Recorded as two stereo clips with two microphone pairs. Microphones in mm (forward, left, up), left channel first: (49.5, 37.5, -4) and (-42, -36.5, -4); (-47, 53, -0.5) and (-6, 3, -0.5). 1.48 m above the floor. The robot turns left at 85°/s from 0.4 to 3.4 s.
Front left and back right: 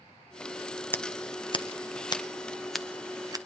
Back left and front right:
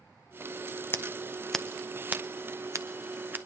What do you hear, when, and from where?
0.9 s scissors: 105° left, 0.6 m; by 3.4 s 105° right, 0.6 m